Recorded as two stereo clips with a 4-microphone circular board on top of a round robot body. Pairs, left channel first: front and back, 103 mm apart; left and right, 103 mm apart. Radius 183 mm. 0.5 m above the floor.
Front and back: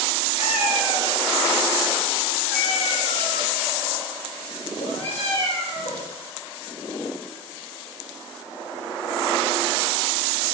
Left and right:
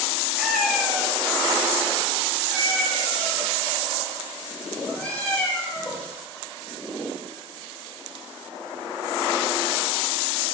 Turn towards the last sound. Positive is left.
turn(degrees=15)